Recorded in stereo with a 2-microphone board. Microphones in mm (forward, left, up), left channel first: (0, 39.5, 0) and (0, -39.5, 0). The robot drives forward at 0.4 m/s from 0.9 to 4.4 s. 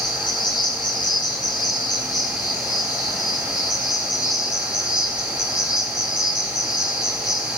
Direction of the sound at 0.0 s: 65° left (ahead or behind).